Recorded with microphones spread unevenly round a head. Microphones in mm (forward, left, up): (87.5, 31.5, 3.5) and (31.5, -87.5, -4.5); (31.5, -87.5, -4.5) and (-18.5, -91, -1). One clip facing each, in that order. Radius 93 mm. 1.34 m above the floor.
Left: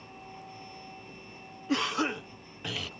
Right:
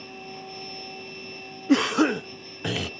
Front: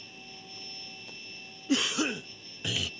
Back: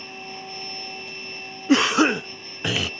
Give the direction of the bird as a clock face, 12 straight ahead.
No bird in this recording.